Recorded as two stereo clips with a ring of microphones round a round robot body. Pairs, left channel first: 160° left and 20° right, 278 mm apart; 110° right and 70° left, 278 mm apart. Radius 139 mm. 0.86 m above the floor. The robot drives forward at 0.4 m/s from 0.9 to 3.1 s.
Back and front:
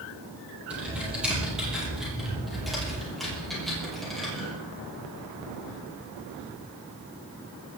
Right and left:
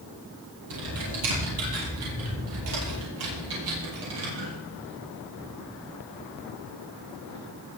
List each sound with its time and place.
0.7 s typing on a keyboard: 65° left, 10 m; by 4.5 s 70° left, 9.5 m